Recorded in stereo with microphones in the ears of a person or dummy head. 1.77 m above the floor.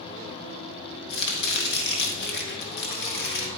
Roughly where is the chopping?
Left.